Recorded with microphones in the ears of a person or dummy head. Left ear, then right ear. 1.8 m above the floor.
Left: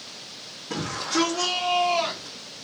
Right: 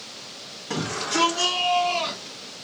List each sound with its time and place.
0.7 s a shout: 35° right (ahead or behind), 0.8 m; by 2.4 s 25° left (ahead or behind), 0.9 m